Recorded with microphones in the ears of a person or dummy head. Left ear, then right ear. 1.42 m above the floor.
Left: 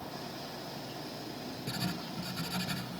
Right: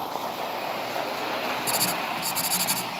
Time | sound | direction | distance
1.7 | writing | 80° right | ?